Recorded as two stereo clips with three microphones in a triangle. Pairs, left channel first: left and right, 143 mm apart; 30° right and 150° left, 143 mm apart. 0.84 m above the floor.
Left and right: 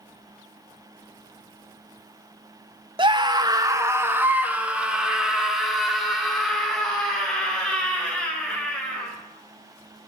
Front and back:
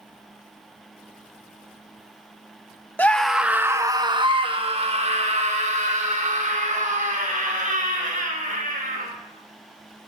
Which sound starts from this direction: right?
A scream, at 3.0 s.